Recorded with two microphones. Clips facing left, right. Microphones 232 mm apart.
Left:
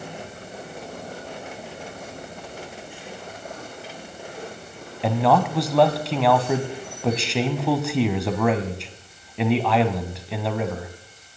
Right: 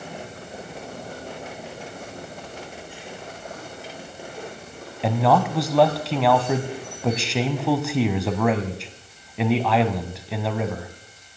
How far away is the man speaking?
About 1.0 m.